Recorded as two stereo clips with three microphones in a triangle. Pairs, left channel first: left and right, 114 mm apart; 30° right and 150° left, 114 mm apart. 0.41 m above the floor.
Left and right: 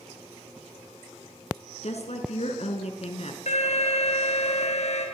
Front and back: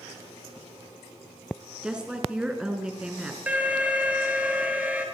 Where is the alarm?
70° left, 5 m.